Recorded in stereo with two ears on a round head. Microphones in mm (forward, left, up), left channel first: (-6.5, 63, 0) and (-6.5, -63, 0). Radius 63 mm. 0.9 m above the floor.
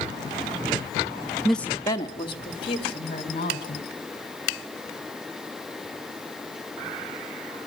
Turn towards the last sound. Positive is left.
turn(degrees=45)  # may be behind; listen again after turning